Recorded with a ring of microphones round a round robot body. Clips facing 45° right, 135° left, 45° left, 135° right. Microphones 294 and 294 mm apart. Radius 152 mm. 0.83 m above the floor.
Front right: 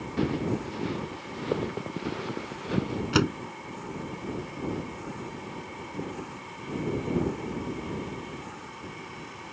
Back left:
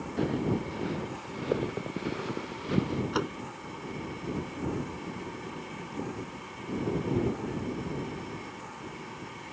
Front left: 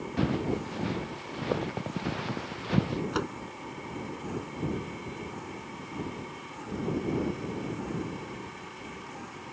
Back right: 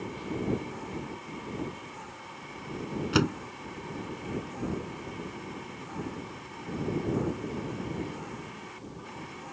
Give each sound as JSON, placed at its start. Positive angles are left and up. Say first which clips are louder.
{"t": 0.2, "sound": "footsteps", "louder": "front right 1 dB, front left 4 dB", "azimuth_deg": 30}
{"t": 3.1, "sound": "a door slam", "louder": "front right 7 dB, back right 6 dB", "azimuth_deg": -90}